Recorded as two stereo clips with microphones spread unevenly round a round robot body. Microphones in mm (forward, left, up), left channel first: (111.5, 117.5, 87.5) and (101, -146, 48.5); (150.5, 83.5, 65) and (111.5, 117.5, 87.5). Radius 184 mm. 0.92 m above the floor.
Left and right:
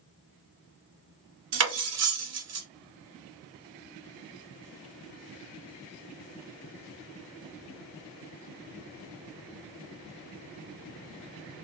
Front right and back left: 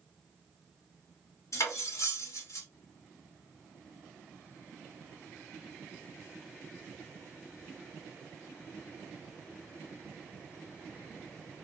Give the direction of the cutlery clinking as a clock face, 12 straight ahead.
2 o'clock.